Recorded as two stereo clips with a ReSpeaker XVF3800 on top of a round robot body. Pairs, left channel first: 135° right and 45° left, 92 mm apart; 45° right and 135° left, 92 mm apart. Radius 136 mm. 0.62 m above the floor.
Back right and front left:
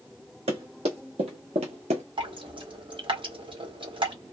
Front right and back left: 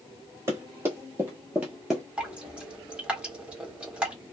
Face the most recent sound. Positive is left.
turn(degrees=60)